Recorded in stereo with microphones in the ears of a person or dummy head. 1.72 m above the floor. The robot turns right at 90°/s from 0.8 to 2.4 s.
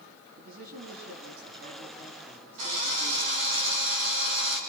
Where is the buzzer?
No buzzer in this recording.